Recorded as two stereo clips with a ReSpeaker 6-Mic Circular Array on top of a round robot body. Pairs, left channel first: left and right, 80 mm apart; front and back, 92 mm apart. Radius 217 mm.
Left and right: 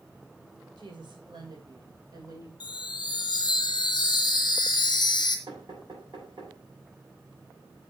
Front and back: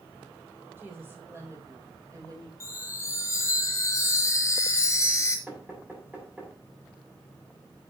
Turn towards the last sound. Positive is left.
turn(degrees=-105)